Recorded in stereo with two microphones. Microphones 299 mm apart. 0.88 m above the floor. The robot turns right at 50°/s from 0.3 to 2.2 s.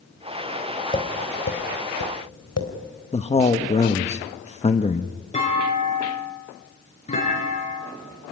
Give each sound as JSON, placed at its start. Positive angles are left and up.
{"t": 0.9, "sound": "tapping", "side_deg": 15, "distance_m": 3.5}
{"t": 3.1, "sound": "a man speaking", "side_deg": 20, "distance_m": 1.1}
{"t": 5.3, "sound": "a clunk", "side_deg": 20, "distance_m": 7.0}